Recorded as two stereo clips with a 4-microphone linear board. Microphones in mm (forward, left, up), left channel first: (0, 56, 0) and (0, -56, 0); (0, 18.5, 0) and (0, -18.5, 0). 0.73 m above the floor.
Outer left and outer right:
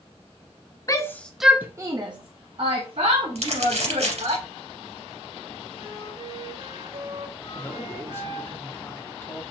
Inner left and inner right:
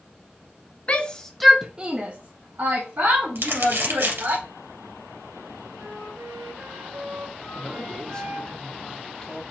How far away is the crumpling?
About 2.5 m.